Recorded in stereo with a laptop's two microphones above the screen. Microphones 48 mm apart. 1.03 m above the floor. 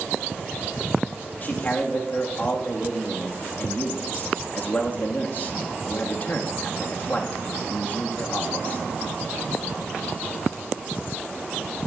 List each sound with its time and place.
1.4 s a man speaking: 35° left (ahead or behind), 1.3 m